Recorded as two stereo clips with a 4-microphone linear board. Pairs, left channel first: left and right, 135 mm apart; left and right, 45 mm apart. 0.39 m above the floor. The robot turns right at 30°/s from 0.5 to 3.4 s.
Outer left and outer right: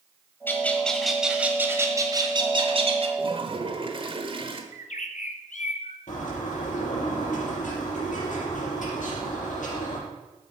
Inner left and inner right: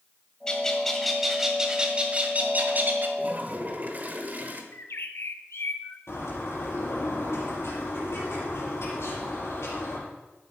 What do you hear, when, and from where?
0.5 s a bird: 165° left, 1.5 m; by 3.1 s 120° right, 1.5 m
3.2 s a toilet flushing: 40° right (ahead or behind), 1.2 m
4.7 s a bird: 70° left (ahead or behind), 0.9 m
6.1 s a bird: 70° left (ahead or behind), 5 m